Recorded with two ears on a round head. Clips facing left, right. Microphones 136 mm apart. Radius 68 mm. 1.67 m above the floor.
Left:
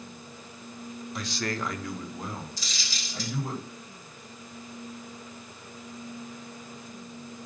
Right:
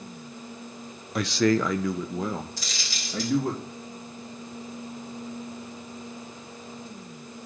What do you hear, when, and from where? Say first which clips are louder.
1.1 s a man speaking: right 11 dB; 50° right (ahead or behind), 0.7 m
2.6 s a dropped coin: right 2 dB; 50° right (ahead or behind), 4 m